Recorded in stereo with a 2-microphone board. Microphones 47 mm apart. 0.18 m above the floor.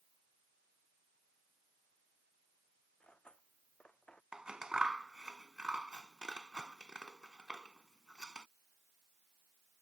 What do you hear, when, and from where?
3.0 s cutlery clinking: 20° left (ahead or behind)
4.3 s scissors: 15° right (ahead or behind)